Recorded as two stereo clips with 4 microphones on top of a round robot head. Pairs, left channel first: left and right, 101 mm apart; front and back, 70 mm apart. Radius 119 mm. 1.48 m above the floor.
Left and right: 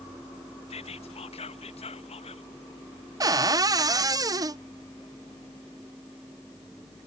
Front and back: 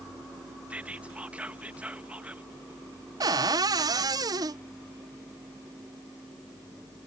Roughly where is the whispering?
Left.